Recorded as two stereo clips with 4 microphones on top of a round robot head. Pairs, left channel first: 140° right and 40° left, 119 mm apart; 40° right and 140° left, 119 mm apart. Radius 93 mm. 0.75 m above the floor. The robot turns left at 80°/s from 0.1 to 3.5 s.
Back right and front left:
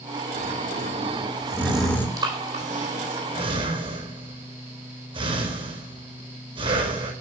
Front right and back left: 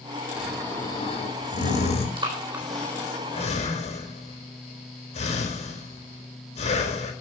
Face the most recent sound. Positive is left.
turn(degrees=-10)